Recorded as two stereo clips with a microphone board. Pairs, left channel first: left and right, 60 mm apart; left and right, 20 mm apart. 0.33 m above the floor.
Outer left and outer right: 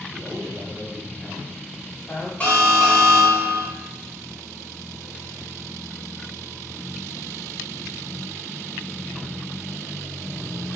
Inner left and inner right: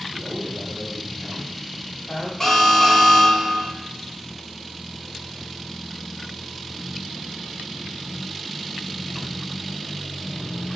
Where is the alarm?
25° left (ahead or behind), 1.0 m.